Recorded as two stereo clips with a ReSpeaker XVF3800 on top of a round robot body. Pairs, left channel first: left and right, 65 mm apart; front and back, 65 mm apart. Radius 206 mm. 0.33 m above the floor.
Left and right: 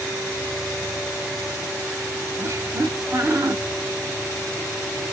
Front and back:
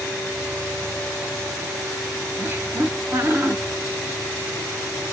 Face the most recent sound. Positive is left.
turn(degrees=-125)